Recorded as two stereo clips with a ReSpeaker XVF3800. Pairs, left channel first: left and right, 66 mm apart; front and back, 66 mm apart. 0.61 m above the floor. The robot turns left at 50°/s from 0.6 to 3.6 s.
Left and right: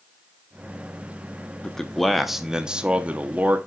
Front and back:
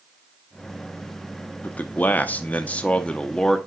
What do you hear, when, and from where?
1.6 s a man speaking: 25° left, 0.7 m; by 3.6 s 75° right, 0.7 m